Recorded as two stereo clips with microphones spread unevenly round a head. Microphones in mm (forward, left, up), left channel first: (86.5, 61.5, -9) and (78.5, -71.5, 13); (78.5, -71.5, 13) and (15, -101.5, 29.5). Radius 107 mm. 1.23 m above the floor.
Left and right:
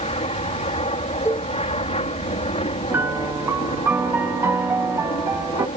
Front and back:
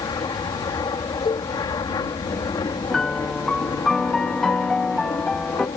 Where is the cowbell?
10° left.